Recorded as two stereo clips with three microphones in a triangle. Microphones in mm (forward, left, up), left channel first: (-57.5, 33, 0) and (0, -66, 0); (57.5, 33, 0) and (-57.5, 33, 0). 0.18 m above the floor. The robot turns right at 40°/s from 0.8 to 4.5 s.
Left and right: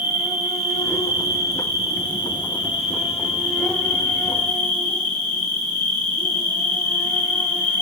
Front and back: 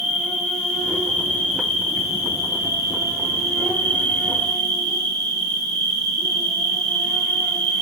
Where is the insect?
75° right, 2.5 m; by 7.8 s 75° left, 2.5 m.